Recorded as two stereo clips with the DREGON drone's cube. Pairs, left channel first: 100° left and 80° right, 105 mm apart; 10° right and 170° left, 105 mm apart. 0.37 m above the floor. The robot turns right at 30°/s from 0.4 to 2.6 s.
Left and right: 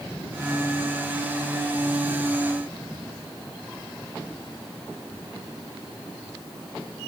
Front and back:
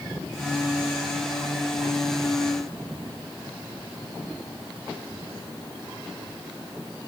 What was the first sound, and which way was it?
Only background noise.